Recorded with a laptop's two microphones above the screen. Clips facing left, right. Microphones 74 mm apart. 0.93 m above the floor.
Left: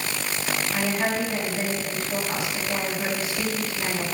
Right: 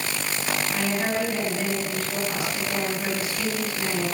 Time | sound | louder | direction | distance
0.7 | a woman speaking | left 1 dB | 20° left (ahead or behind) | 6 m